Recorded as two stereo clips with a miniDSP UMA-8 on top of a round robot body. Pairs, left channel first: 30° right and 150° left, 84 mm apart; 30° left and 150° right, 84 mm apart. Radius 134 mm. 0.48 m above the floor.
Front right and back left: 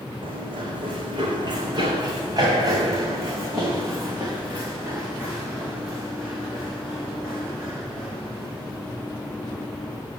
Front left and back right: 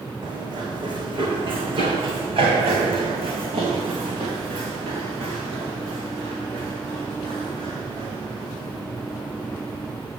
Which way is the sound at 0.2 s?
165° left.